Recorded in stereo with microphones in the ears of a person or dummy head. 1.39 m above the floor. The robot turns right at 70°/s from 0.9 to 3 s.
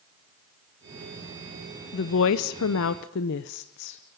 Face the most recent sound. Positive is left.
turn(degrees=125)